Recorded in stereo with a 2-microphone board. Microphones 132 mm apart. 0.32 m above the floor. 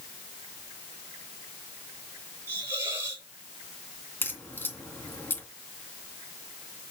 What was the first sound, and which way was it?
A hiss, 20° right (ahead or behind).